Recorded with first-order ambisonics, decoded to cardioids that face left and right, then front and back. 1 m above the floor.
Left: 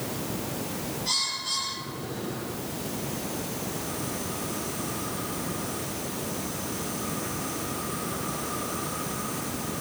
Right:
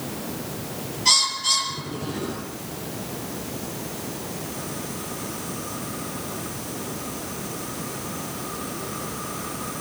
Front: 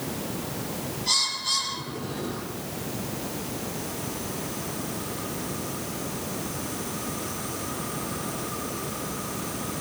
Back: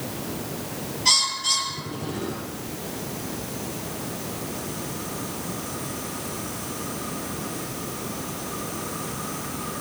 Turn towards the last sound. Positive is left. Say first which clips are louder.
# right 9 dB, back 4 dB
turn(degrees=-135)